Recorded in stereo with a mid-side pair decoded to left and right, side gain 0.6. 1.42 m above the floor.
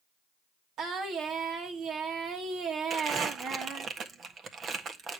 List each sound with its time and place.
0.8 s singing: 55° right, 1.9 m
2.9 s crumpling: 40° right, 1.5 m